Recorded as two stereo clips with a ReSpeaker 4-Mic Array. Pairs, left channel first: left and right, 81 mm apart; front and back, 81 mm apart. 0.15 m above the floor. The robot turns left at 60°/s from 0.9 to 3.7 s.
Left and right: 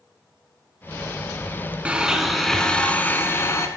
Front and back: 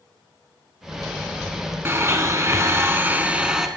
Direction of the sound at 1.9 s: 150° right.